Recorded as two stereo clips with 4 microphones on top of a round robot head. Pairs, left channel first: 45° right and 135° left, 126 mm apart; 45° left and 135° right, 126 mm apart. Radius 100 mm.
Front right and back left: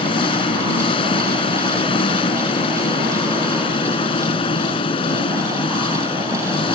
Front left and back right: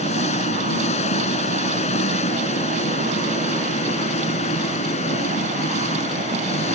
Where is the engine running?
5° left.